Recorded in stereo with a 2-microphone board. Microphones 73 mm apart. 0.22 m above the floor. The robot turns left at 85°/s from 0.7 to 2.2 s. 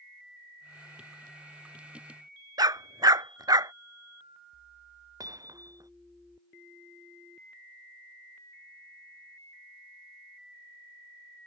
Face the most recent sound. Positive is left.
turn(degrees=-55)  # may be behind; listen again after turning